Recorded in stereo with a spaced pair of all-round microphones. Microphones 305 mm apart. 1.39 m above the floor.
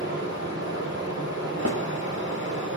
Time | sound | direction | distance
0.0 | running water | 35° right (ahead or behind) | 5 m
1.6 | a snare drum | 55° right (ahead or behind) | 2 m